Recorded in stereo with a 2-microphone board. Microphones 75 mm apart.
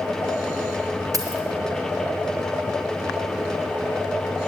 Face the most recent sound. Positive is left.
turn(degrees=-50)  # may be behind; listen again after turning